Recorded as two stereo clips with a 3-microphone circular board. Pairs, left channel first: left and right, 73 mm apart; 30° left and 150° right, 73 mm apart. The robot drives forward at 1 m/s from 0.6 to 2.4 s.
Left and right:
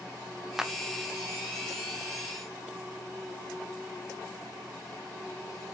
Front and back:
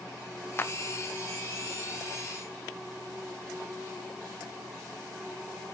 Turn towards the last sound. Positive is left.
turn(degrees=-175)